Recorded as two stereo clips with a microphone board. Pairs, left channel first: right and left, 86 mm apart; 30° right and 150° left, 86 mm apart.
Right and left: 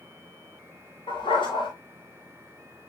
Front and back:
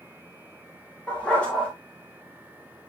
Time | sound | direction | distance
1.1 | a dog barking | 110° right | 6.5 m